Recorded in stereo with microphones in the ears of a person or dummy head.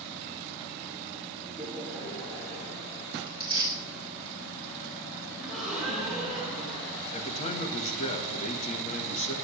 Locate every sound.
1.5 s laughter: 5° left (ahead or behind), 2.5 m; by 3.0 s 20° left (ahead or behind), 4.5 m
3.3 s tearing paper: 25° right (ahead or behind), 3.5 m
5.4 s a gasp: centre (ahead or behind), 6.5 m
7.1 s a man speaking: 40° left (ahead or behind), 1.5 m